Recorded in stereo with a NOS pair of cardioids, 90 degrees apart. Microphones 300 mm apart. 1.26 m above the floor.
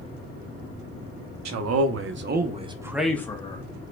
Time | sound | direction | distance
1.4 | a man speaking | 60° right | 1.2 m